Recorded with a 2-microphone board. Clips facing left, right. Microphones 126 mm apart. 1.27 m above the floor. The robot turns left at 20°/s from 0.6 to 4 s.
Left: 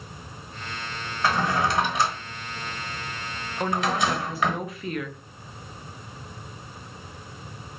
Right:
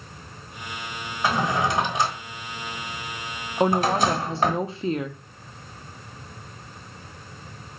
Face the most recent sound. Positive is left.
turn(degrees=-30)  # may be behind; listen again after turning